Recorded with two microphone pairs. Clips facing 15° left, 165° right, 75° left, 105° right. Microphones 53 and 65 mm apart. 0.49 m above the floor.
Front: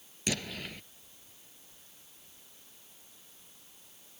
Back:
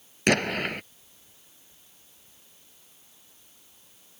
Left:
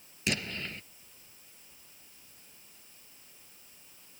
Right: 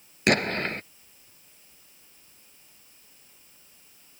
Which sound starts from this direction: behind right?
An explosion, at 0.3 s.